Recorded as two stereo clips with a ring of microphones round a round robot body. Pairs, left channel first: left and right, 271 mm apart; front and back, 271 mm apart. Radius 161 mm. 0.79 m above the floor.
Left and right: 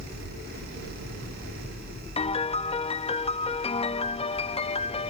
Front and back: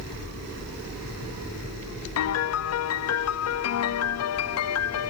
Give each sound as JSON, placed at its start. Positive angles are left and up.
{"t": 2.2, "sound": "a piano", "azimuth_deg": 20}